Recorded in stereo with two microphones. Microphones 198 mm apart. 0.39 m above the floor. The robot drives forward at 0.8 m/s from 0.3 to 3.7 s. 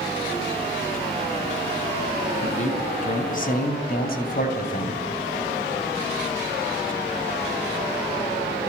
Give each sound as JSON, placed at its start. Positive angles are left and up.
{"t": 2.4, "sound": "a man speaking", "side_deg": 35, "distance_m": 3.5}